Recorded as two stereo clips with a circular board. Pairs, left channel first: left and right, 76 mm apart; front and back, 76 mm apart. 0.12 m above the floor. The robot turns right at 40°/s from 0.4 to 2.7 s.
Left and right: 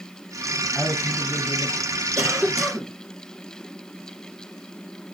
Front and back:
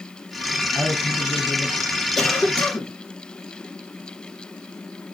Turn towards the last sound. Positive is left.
turn(degrees=-15)